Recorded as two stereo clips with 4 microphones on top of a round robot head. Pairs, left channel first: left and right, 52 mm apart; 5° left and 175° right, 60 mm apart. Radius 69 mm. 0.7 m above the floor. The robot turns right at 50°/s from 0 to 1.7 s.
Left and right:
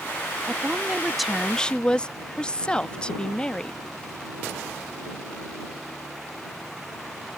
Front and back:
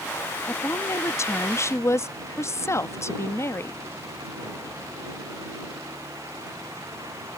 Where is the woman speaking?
40° right; by 3.8 s 20° left.